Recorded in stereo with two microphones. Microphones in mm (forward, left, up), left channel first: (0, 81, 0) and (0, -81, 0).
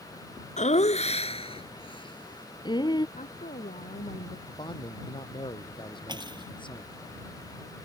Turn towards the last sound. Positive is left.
turn(degrees=-25)  # may be behind; listen again after turning